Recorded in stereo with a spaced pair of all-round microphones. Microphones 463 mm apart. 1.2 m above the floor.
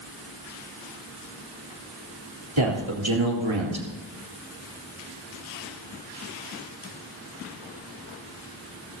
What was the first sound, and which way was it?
A man speaking, 75° right (ahead or behind).